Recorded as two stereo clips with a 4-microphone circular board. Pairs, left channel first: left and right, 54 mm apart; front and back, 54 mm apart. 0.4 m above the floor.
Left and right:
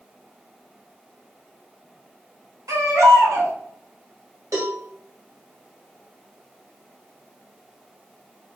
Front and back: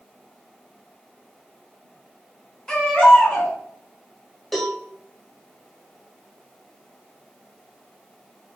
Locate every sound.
2.7 s a baby crying: 80° right, 1.6 m
4.5 s a cowbell: 90° right, 1.6 m